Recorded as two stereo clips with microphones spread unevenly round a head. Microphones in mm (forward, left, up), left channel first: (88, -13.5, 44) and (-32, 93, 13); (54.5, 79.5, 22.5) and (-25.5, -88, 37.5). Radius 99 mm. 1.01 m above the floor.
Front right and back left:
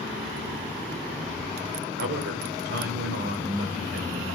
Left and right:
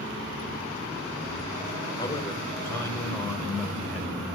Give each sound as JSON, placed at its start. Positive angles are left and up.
{"t": 2.0, "sound": "a man speaking", "azimuth_deg": 135, "distance_m": 5.0}